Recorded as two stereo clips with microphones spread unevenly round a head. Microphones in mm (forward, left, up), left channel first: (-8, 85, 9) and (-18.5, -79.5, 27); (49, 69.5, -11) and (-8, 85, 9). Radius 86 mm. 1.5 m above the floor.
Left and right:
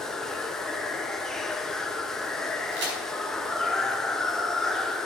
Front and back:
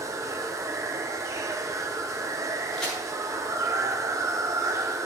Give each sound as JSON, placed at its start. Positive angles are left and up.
{"t": 0.0, "sound": "running water", "azimuth_deg": 175, "distance_m": 1.2}
{"t": 2.7, "sound": "a crack", "azimuth_deg": -110, "distance_m": 5.0}